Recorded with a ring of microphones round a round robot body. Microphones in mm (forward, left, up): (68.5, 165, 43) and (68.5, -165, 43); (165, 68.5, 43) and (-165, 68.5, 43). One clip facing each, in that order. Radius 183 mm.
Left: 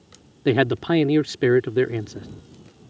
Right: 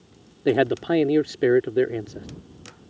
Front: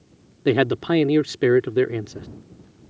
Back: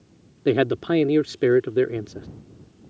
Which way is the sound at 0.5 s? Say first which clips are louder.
Left 1 dB, front 1 dB; 70° left.